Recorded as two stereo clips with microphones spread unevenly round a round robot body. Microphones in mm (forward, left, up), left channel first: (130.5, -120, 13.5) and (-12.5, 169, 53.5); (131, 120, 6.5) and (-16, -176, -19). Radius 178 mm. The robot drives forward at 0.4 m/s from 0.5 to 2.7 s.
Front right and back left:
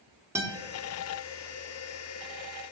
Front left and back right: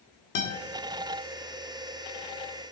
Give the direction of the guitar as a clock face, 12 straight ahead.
11 o'clock.